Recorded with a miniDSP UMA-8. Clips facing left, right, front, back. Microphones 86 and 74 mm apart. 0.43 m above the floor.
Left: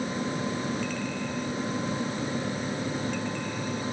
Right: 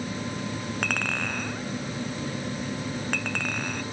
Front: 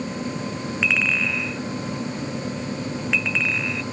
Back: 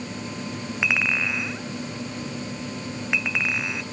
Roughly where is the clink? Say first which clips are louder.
Right 2 dB, front 1 dB; right.